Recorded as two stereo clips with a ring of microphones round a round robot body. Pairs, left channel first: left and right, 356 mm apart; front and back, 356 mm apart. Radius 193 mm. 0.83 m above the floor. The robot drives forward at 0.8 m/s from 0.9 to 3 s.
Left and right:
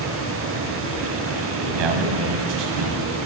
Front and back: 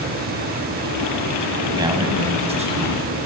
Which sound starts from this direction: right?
A man speaking, at 1.6 s.